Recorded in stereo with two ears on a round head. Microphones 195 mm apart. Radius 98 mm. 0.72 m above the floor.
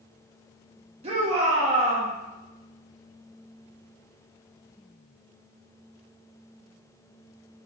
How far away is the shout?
About 1.2 m.